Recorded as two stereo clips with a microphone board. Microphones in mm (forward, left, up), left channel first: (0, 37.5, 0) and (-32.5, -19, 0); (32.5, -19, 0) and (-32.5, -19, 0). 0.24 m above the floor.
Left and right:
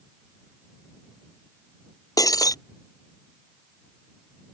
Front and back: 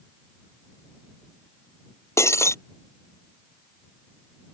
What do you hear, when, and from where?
2.2 s breaking glass: 40° left